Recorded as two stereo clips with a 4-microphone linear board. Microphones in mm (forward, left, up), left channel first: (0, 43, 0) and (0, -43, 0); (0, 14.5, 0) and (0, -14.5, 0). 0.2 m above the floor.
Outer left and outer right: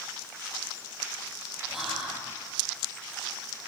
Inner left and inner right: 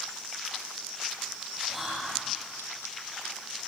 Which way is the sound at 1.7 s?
5° right (ahead or behind).